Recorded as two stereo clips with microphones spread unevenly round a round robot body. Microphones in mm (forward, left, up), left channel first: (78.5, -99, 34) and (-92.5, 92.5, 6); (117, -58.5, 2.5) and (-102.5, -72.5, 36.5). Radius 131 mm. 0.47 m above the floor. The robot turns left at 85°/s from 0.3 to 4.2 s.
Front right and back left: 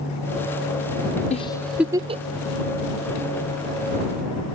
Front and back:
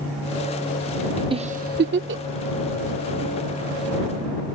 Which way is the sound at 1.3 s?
110° right.